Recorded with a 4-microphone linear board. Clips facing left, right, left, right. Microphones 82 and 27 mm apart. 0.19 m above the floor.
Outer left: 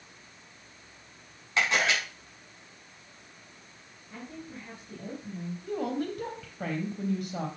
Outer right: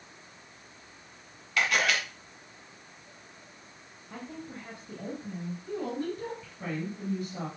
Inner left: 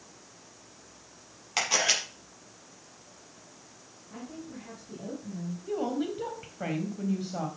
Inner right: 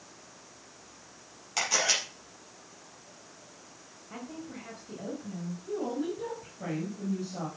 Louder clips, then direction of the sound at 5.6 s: Outer left 2 dB, inner left 2 dB; 65° left (ahead or behind).